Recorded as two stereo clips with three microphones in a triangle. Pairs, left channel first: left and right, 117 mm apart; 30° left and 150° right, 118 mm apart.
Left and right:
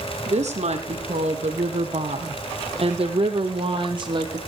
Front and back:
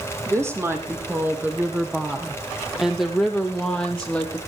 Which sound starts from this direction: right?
A woman speaking, at 0.3 s.